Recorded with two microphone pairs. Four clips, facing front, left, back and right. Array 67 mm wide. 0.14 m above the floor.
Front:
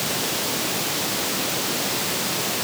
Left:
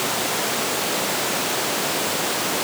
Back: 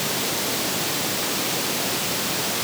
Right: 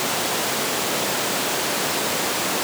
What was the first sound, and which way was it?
Only background noise.